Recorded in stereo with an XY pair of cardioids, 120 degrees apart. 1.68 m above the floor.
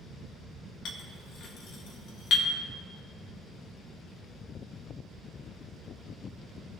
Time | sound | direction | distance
0.8 | a clink | 70° left | 1.9 m